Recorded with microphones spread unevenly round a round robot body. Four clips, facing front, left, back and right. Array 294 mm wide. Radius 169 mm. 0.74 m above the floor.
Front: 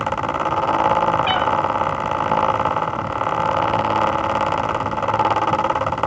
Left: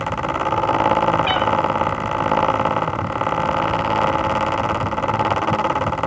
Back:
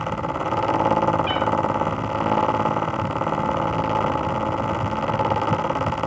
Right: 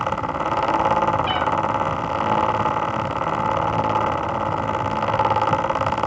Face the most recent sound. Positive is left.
turn(degrees=-10)